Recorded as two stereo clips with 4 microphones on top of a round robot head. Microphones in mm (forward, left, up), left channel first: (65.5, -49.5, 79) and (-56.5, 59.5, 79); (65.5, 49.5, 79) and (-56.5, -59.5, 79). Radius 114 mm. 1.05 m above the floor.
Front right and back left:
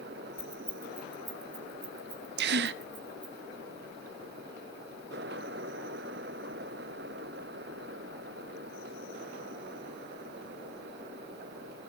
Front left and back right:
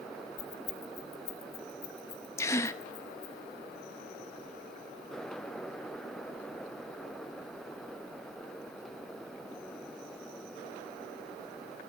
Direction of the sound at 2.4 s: 115° left.